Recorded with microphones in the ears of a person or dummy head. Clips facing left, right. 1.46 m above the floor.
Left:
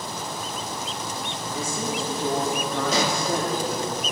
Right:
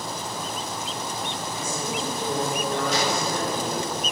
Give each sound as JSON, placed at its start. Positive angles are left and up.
{"t": 1.5, "sound": "a woman speaking", "side_deg": 85, "distance_m": 4.5}
{"t": 2.9, "sound": "a pop", "side_deg": 75, "distance_m": 1.2}